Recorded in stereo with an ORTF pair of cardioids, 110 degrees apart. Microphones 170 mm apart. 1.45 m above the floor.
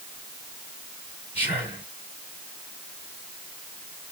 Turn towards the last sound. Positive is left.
turn(degrees=-10)